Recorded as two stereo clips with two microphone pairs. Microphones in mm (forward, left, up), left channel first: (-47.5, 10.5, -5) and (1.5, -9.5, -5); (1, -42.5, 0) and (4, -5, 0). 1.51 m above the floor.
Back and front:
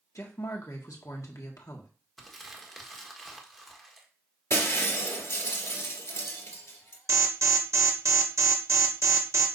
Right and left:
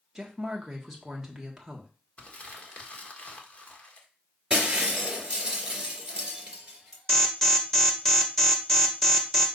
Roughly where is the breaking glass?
Behind left.